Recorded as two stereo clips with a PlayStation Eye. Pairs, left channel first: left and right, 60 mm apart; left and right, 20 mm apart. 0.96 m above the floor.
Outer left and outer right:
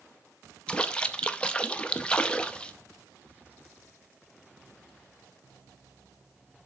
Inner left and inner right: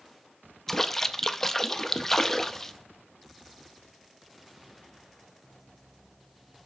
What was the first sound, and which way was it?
A splash, 20° left (ahead or behind).